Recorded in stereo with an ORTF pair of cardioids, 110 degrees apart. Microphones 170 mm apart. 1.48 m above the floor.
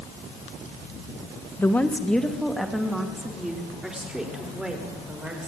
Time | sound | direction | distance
1.6 | a woman speaking | 10° left | 1.3 m